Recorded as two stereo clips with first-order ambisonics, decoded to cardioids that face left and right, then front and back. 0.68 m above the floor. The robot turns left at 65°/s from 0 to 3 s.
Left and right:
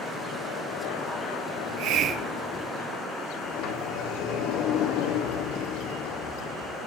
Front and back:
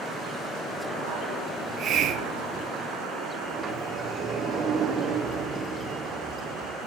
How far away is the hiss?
About 1.7 m.